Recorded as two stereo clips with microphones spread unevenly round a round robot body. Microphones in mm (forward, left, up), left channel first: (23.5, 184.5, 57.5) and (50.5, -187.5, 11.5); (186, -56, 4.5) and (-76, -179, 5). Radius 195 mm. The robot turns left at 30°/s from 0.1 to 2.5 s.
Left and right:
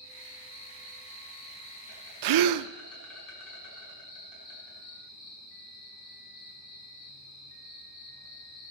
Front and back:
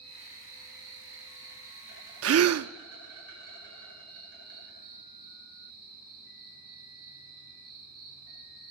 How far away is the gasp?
About 0.5 m.